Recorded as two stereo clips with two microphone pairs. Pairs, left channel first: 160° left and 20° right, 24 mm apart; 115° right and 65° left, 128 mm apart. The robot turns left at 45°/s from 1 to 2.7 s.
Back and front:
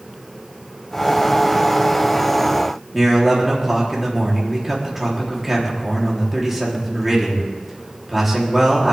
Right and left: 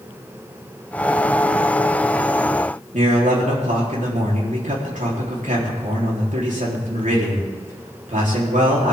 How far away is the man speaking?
About 3.5 m.